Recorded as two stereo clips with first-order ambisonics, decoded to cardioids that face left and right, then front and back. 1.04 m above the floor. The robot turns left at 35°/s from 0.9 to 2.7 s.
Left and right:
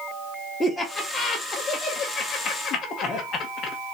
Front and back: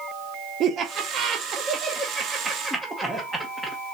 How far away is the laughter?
About 0.8 m.